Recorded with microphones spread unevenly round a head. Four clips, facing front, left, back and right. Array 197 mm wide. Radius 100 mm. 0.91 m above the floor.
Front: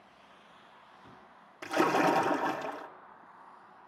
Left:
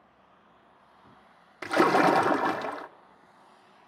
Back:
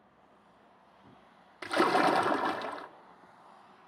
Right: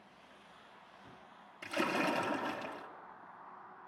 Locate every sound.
1.6 s a splash: 80° left, 0.8 m